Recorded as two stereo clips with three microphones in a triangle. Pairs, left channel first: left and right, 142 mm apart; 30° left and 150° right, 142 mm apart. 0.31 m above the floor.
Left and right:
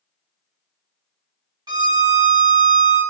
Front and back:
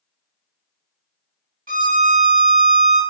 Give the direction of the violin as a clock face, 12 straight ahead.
5 o'clock.